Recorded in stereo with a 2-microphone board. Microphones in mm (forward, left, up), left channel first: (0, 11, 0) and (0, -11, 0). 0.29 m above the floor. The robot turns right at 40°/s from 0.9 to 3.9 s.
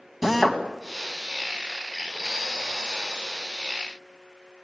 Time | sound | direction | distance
0.2 | a drill | 5° right (ahead or behind) | 2.5 m